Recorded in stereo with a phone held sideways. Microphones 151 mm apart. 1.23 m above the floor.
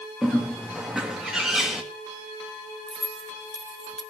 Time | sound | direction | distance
0.2 | a bird | 5° right (ahead or behind) | 2 m
2.9 | keys jangling | 5° left (ahead or behind) | 1.6 m